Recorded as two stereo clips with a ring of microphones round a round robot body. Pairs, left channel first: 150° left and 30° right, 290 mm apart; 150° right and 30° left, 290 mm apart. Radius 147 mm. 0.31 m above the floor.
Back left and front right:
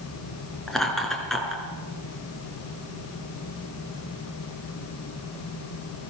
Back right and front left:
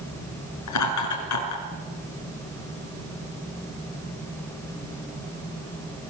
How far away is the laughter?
About 5.5 m.